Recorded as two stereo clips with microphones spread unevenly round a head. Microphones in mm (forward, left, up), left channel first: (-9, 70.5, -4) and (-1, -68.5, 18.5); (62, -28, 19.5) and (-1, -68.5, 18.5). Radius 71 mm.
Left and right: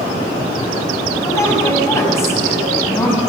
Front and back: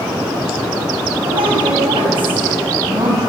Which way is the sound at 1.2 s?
165° left.